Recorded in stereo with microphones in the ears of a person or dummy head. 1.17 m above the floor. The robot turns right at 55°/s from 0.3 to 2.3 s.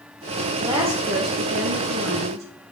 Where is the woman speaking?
160° right, 1.0 m; by 2.5 s 65° right, 1.0 m.